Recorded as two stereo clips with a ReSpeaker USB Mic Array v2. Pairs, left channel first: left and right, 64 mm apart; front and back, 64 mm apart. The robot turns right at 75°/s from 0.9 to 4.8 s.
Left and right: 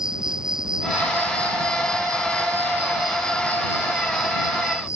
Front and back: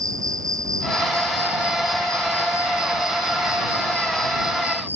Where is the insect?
170° right; by 5.0 s 125° left.